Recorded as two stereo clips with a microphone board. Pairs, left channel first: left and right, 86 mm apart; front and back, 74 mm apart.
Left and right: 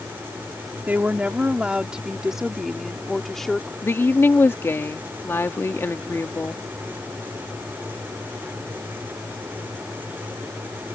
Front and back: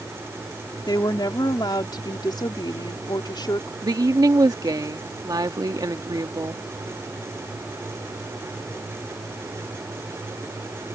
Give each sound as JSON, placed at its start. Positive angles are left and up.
{"t": 0.9, "sound": "a woman speaking", "azimuth_deg": -20}
{"t": 3.8, "sound": "a woman speaking", "azimuth_deg": 155}